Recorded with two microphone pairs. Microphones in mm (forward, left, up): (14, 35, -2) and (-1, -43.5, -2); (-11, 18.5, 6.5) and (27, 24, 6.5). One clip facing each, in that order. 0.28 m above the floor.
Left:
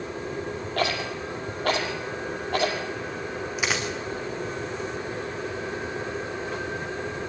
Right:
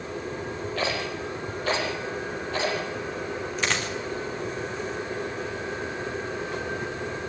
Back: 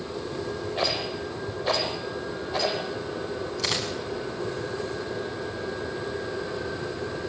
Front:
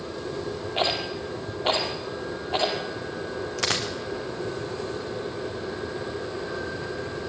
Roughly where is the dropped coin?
Ahead.